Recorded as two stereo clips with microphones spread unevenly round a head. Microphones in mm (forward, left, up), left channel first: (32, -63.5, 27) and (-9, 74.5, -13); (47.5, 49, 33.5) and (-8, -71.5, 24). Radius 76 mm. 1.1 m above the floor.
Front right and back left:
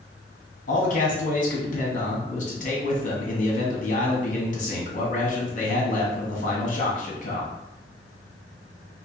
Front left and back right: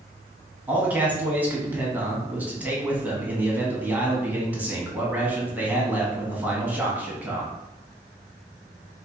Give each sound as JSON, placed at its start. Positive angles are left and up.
{"t": 0.7, "sound": "a man speaking", "azimuth_deg": -35, "distance_m": 1.2}